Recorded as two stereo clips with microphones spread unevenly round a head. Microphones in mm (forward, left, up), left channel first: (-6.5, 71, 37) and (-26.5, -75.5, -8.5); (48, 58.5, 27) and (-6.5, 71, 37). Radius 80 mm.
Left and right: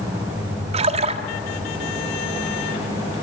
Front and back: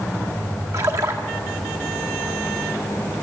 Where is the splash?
150° right, 1.4 m.